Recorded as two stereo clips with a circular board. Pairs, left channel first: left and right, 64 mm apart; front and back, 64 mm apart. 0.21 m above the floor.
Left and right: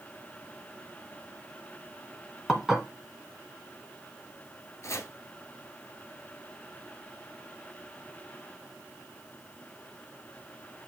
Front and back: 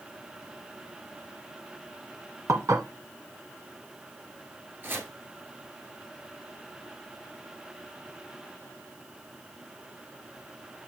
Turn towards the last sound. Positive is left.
turn(degrees=125)